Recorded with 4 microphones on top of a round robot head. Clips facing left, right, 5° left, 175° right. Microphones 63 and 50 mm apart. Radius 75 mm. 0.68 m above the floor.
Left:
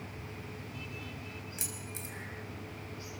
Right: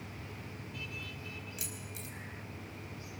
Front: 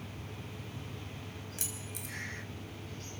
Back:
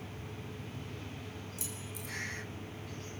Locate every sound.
1.6 s keys jangling: 35° left, 3.5 m